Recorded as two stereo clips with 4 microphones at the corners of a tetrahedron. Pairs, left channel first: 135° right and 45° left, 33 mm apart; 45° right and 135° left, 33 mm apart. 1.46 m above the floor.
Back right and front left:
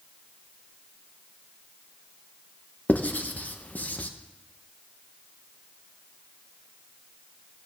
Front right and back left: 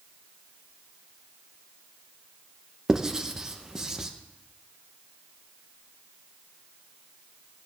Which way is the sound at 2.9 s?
155° right.